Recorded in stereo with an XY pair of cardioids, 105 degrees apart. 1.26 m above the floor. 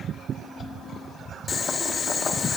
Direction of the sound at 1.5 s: 50° left.